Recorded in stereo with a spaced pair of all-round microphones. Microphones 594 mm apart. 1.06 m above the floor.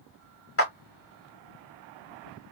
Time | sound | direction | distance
0.6 | a clap | 20° left (ahead or behind) | 1.5 m